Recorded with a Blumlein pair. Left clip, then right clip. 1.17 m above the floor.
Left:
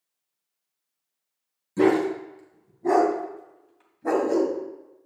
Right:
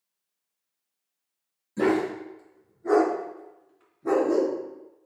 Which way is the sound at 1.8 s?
20° left.